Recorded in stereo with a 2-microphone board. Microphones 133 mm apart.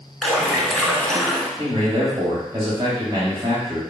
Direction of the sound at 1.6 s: 35° right (ahead or behind).